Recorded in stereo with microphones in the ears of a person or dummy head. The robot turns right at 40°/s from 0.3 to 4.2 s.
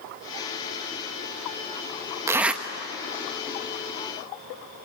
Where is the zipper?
15° right (ahead or behind), 1.2 m; by 2.6 s centre (ahead or behind), 1.2 m.